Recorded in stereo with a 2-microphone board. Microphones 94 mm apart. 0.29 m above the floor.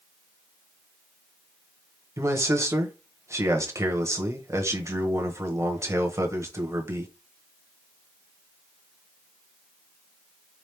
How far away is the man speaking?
About 1.0 m.